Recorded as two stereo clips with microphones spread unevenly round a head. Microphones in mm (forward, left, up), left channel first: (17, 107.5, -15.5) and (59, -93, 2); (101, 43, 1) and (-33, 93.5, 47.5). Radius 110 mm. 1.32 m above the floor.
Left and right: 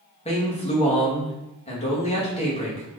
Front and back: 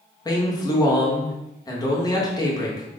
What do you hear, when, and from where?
0.2 s a man speaking: 40° left, 1.8 m